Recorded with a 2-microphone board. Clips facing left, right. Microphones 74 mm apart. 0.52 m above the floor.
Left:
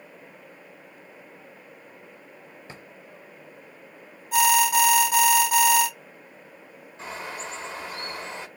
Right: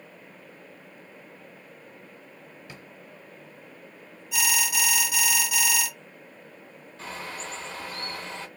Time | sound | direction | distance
2.7 | a drawer | 30° left (ahead or behind) | 0.5 m
4.3 | an alarm | 45° left (ahead or behind) | 0.7 m
7.0 | a bird | 20° left (ahead or behind) | 0.8 m